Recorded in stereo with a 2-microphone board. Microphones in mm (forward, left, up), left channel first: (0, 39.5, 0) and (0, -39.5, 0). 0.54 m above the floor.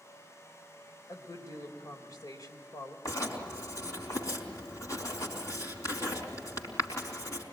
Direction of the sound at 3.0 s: 45° left (ahead or behind).